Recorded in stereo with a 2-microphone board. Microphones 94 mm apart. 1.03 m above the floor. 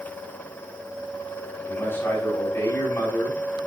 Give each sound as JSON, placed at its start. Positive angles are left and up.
{"t": 1.7, "sound": "a man speaking", "side_deg": 25, "distance_m": 7.0}